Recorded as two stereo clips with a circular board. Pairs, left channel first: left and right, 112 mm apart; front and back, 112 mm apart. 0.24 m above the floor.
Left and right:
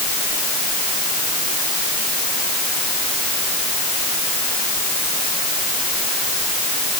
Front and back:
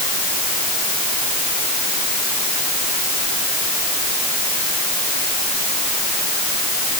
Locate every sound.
Only background noise.